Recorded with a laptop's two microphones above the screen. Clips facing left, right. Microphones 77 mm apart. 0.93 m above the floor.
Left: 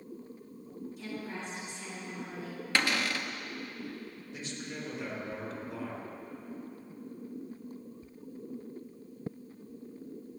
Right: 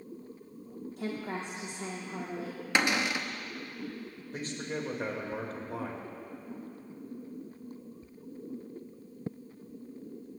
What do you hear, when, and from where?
1.0 s a woman speaking: 65° right (ahead or behind), 2.5 m
2.8 s a cupboard door: 15° right (ahead or behind), 0.6 m
4.3 s a man speaking: 45° right (ahead or behind), 4 m